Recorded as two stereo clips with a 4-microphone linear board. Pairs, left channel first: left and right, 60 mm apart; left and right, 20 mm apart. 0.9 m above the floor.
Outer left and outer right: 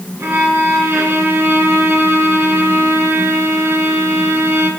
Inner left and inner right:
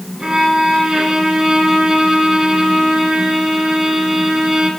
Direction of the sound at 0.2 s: 55° right (ahead or behind).